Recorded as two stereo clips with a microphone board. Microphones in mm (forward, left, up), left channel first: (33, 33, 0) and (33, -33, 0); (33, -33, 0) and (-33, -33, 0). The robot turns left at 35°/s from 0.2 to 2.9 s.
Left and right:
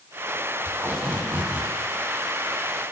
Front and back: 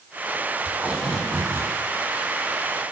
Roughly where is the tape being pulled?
Right.